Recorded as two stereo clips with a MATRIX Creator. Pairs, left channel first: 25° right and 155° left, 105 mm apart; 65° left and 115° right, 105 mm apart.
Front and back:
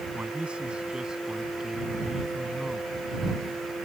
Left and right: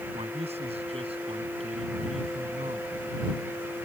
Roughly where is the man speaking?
Behind right.